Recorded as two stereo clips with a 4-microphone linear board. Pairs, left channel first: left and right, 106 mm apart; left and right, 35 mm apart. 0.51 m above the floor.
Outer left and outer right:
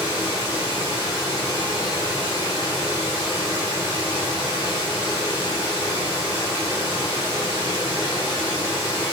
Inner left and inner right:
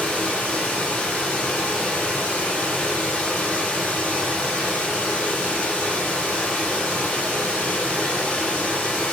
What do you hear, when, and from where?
0.0 s running water: 40° left (ahead or behind), 1.8 m